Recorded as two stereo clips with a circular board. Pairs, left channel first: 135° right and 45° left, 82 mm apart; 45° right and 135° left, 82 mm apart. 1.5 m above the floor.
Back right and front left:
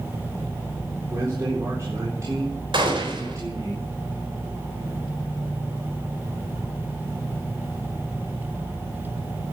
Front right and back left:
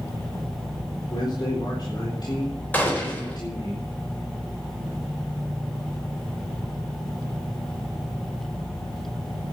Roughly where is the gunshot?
Ahead left.